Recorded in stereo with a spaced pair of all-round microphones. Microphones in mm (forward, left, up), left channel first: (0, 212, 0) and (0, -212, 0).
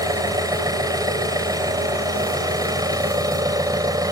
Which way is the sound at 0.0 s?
10° right (ahead or behind).